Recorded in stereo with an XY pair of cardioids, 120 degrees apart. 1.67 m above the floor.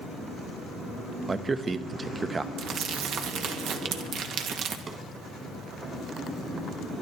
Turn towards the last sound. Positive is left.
turn(degrees=-40)